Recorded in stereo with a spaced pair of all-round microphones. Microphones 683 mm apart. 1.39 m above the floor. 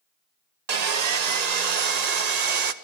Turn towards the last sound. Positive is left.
turn(degrees=-70)  # may be behind; listen again after turning